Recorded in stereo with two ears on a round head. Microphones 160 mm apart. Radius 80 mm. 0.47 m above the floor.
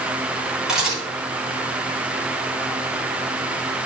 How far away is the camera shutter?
About 4 m.